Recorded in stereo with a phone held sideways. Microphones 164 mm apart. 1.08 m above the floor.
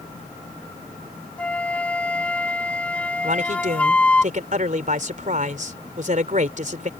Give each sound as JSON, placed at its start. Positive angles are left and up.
{"t": 1.4, "sound": "a flute", "side_deg": 5}
{"t": 3.2, "sound": "a man speaking", "side_deg": -55}